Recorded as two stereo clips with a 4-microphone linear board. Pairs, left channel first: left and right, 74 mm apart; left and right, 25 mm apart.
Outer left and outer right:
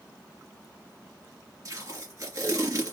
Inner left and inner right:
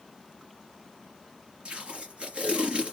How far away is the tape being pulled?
About 2 m.